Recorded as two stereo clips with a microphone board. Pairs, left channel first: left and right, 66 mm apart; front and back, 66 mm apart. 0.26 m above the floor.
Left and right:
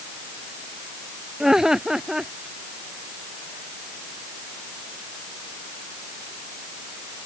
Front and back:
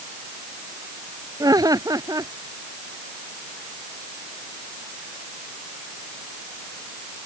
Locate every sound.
1.4 s laughter: 170° right